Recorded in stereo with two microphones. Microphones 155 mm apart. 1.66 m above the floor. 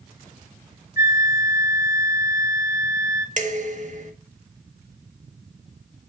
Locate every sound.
1.0 s a flute: 65° left (ahead or behind), 1.6 m
3.4 s dishes clattering: 55° right (ahead or behind), 1.7 m